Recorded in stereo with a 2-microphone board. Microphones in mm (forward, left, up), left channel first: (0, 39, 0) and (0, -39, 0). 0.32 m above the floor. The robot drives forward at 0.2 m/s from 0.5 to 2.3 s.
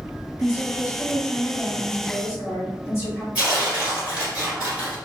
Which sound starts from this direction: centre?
Tearing paper, at 3.4 s.